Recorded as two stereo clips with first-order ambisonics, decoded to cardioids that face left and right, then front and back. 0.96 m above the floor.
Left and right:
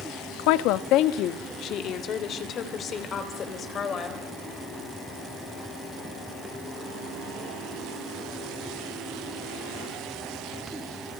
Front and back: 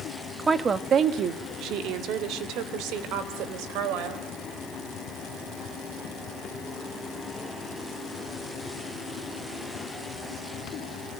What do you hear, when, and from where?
0.4 s a woman speaking: 100° left, 1.0 m; by 4.2 s 155° left, 4 m